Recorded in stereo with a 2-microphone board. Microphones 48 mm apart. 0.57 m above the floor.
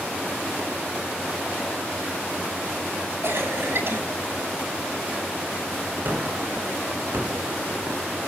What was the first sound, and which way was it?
A cough, 55° right (ahead or behind).